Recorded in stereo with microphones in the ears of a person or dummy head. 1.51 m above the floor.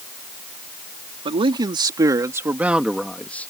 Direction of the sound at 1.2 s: 30° right (ahead or behind).